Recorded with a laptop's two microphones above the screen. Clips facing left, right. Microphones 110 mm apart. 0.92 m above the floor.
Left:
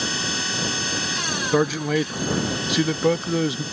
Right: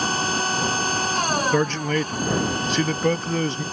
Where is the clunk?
I don't hear a clunk.